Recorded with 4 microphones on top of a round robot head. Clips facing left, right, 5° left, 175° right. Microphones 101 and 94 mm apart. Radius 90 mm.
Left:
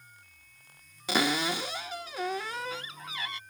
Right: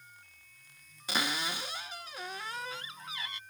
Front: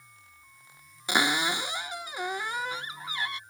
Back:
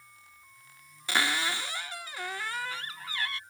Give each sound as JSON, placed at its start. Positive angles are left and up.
{"t": 1.1, "sound": "a cupboard door", "azimuth_deg": 80}